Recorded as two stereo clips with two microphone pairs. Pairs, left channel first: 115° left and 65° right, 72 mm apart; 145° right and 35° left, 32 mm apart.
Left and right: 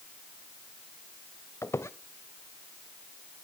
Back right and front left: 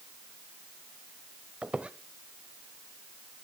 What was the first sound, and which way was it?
A squeak, 90° left.